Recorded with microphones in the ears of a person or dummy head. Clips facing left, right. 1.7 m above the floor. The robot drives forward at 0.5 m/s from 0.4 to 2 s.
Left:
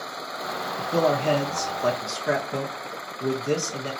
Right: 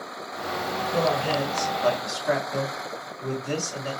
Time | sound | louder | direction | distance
0.8 | a man speaking | left 3 dB | 80° left | 0.8 m